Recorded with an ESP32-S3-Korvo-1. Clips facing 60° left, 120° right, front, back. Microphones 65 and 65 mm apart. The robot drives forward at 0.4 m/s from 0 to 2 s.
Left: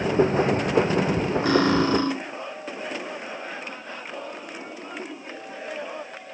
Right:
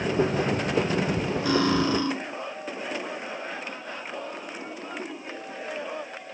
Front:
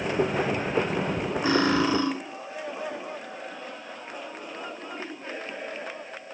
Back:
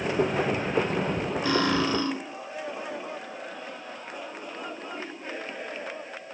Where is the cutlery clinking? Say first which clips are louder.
Left 3 dB, front 3 dB; 55° left, 1.3 m; by 2.1 s 70° left, 1.2 m.